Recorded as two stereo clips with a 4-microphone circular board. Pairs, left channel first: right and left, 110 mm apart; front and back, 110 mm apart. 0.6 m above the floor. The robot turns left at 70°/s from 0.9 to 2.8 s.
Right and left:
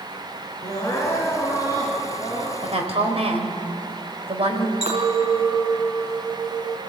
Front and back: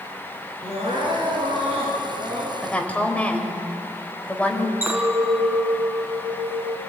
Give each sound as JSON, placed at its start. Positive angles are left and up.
{"t": 0.6, "sound": "crying", "azimuth_deg": -150, "distance_m": 8.0}
{"t": 2.6, "sound": "a woman speaking", "azimuth_deg": 90, "distance_m": 3.0}
{"t": 4.8, "sound": "a clink", "azimuth_deg": 110, "distance_m": 4.5}